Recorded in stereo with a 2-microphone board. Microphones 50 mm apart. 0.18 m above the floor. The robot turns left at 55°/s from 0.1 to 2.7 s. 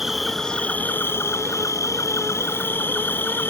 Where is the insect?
175° right; by 3.5 s 45° left.